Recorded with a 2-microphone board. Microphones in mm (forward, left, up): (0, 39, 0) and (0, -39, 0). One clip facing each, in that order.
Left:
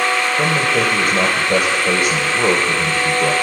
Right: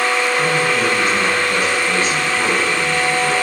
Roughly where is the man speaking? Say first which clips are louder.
Even; left.